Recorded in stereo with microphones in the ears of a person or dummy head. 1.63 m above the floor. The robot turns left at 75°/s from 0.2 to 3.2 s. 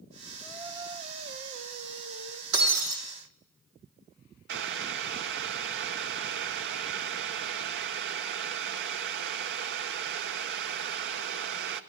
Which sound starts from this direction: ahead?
Singing, at 0.4 s.